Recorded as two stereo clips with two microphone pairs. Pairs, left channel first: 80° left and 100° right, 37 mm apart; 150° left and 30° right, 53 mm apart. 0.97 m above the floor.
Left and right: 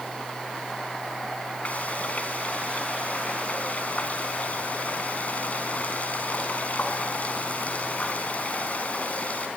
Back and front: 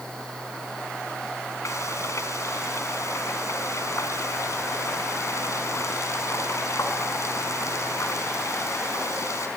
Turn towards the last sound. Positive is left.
turn(degrees=130)